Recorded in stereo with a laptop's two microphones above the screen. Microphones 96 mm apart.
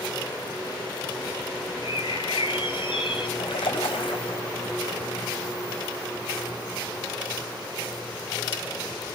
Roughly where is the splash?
Left.